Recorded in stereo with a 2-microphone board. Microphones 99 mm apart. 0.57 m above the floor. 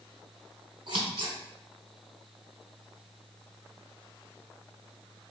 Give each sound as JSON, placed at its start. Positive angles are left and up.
{"t": 0.9, "sound": "scissors", "side_deg": -60, "distance_m": 2.0}